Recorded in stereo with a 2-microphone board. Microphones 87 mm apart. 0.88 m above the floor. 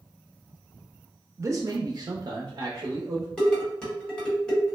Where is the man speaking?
30° right (ahead or behind), 0.5 m; by 3.3 s 50° right (ahead or behind), 1.0 m.